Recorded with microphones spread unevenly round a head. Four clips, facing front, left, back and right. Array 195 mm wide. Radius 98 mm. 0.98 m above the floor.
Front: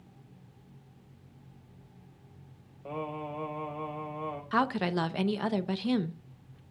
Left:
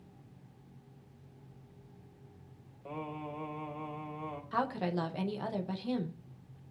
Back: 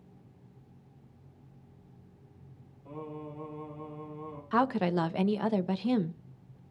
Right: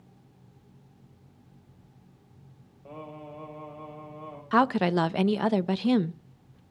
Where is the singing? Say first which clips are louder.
Left 1 dB, front 5 dB; 10° left, 4.5 m.